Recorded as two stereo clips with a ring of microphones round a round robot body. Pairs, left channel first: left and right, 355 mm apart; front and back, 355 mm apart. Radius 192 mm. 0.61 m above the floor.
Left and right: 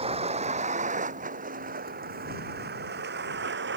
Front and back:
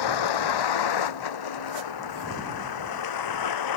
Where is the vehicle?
15° right; by 3.8 s 25° right.